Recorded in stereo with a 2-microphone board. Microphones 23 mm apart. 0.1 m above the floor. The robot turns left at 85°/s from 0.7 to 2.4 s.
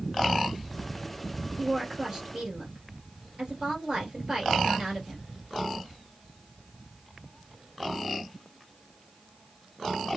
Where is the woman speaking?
Straight ahead, 2 m; by 5.2 s 70° right, 2 m.